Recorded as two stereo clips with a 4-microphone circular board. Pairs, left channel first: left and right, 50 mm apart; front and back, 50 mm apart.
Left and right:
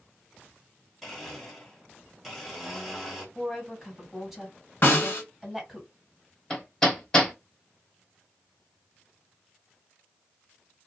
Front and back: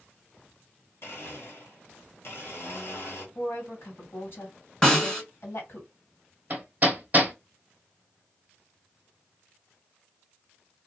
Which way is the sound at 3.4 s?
Straight ahead.